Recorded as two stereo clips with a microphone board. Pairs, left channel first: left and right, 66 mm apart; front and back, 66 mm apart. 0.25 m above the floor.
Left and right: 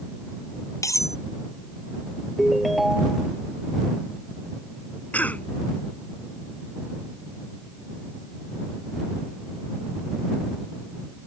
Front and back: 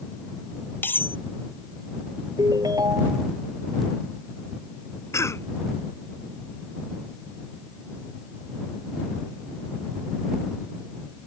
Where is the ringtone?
175° right.